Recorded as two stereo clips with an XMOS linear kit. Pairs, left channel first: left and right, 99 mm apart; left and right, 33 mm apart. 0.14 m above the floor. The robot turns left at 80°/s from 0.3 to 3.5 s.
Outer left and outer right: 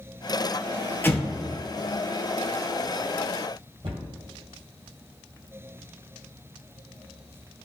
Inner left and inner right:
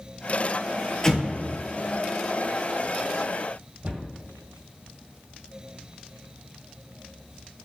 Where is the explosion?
20° left (ahead or behind), 0.7 m; by 1.6 s 60° left (ahead or behind), 0.7 m.